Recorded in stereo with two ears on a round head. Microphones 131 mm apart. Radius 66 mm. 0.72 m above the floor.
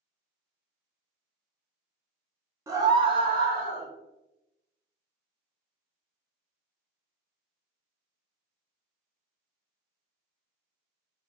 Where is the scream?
20° right (ahead or behind), 0.7 m; by 3.9 s 15° right (ahead or behind), 1.1 m.